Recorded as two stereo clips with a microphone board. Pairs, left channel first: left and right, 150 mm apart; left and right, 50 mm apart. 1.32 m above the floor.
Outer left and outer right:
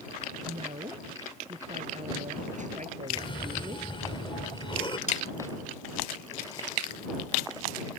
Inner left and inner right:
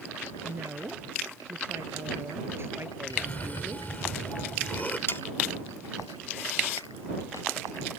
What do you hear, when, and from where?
0.4 s a woman speaking: 45° right (ahead or behind); by 3.9 s 60° right (ahead or behind)
3.1 s a cough: 35° left (ahead or behind)
5.1 s sawing: 50° left (ahead or behind)